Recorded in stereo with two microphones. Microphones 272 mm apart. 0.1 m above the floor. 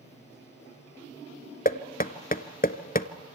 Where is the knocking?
30° left (ahead or behind), 0.9 m.